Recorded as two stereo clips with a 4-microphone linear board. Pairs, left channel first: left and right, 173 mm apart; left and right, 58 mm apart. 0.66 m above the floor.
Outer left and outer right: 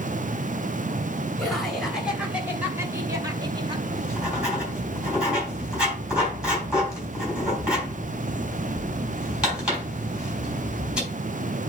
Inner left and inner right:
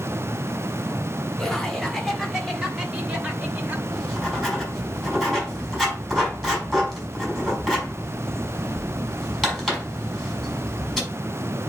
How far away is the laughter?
About 3 m.